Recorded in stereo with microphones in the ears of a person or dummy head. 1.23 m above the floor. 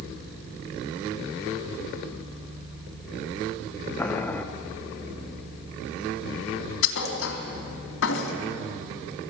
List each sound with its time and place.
4.0 s boiling: 10° left (ahead or behind), 0.9 m
6.8 s a thud: 75° left (ahead or behind), 3.5 m